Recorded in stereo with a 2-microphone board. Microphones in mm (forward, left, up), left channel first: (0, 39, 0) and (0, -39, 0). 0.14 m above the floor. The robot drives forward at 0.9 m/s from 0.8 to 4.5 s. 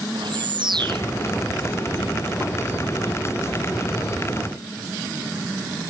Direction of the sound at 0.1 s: 75° right (ahead or behind).